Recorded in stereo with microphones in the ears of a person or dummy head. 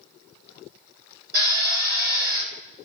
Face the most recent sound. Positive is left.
turn(degrees=-60)  # may be behind; listen again after turning